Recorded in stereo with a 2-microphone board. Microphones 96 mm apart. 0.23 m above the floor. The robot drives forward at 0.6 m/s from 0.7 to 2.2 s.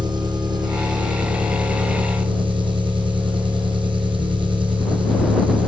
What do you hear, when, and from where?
0.0 s an engine running: 55° right (ahead or behind), 4 m; by 5.7 s 60° right (ahead or behind), 3.5 m